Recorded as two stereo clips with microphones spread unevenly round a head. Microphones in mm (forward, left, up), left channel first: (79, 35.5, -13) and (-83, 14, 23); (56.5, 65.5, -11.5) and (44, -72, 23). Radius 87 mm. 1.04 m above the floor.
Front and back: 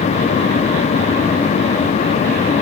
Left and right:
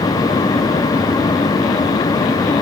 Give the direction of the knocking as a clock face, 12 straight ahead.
I don't hear knocking.